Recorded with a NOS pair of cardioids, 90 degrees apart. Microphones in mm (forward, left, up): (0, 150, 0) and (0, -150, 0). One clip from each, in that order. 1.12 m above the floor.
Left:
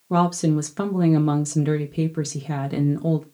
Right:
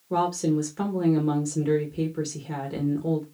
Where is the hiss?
No hiss in this recording.